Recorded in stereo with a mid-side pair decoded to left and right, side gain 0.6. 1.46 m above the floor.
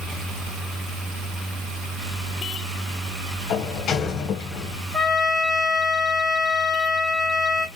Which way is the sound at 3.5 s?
50° left.